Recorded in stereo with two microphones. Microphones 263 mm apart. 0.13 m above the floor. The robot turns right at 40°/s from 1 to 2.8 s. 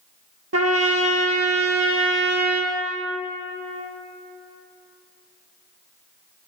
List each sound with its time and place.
0.5 s a trumpet: 100° right, 1.0 m; by 2.7 s 30° right, 1.0 m